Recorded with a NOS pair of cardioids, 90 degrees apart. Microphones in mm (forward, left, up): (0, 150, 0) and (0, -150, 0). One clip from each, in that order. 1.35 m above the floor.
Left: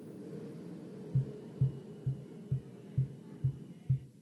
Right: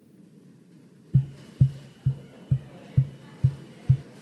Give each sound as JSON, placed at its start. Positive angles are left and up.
{"t": 1.1, "sound": "tapping", "azimuth_deg": -65, "distance_m": 0.6}